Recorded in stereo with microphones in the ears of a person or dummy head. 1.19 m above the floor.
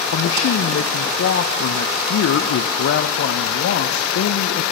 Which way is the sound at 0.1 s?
80° left.